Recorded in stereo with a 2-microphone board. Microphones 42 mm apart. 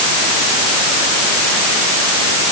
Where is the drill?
No drill in this recording.